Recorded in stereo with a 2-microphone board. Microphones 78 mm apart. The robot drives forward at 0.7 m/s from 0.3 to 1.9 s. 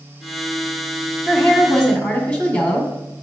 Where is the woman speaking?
20° left (ahead or behind), 1.2 m; by 2.9 s 15° left (ahead or behind), 1.4 m.